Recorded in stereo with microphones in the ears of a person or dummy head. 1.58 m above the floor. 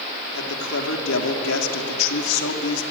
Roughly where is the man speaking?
Left.